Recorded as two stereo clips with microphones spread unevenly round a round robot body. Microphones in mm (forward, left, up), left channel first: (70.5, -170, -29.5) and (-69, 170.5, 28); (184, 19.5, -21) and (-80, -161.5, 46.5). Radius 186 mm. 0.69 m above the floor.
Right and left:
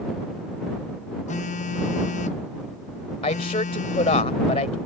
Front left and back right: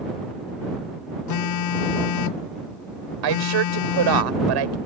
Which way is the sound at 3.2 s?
140° right.